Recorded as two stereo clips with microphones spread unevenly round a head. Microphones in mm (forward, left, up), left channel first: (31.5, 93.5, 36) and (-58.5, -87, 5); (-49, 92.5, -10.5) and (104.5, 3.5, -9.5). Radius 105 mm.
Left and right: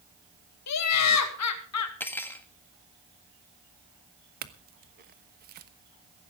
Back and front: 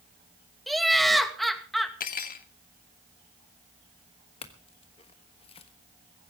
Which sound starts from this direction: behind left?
Cutlery clinking, at 2.0 s.